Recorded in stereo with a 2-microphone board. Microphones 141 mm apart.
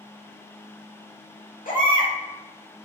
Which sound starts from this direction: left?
A baby crying, at 1.6 s.